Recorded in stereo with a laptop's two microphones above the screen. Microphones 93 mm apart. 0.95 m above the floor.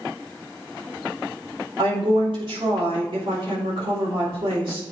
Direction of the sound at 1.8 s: 65° right (ahead or behind).